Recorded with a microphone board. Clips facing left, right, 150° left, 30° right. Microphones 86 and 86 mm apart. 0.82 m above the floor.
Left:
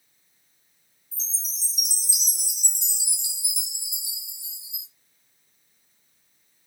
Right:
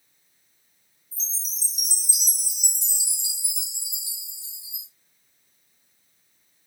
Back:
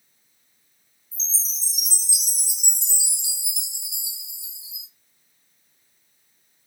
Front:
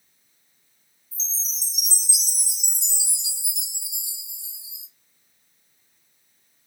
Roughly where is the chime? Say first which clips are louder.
Right 1 dB, back 1 dB; ahead.